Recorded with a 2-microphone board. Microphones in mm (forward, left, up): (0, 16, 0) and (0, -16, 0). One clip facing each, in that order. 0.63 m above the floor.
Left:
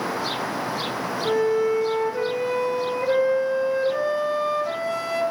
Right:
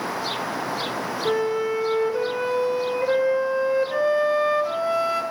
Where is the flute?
20° right (ahead or behind), 2 m.